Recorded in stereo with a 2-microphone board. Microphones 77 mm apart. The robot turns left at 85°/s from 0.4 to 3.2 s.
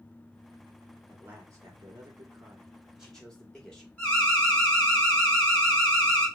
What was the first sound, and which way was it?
A man speaking, 10° right.